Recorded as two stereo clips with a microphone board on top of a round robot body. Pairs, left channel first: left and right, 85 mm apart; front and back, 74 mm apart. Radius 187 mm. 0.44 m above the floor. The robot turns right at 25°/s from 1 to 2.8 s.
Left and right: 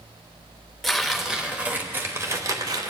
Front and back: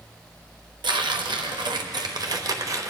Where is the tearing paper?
Straight behind, 1.1 m; by 2.9 s 135° right, 1.1 m.